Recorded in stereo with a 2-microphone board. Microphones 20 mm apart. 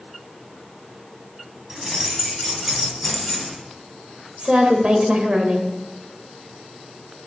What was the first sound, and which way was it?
Keys jangling, 30° right (ahead or behind).